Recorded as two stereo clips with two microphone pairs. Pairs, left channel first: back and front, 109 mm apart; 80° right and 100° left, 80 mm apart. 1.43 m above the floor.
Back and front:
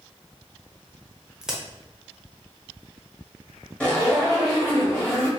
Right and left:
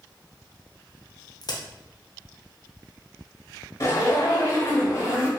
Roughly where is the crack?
Right.